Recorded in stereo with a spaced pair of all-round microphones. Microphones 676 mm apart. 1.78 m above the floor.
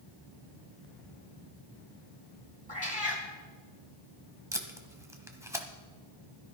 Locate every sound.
2.7 s a cat meowing: 10° left (ahead or behind), 4 m
4.5 s tape being pulled: 5° right (ahead or behind), 1.2 m